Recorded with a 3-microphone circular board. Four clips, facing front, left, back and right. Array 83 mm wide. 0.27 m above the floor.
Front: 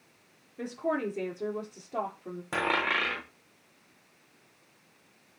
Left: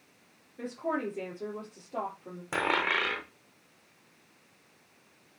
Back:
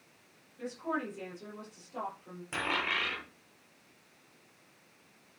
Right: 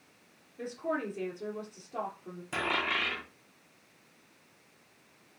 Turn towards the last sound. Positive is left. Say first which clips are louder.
# left 3 dB, front 5 dB
turn(degrees=50)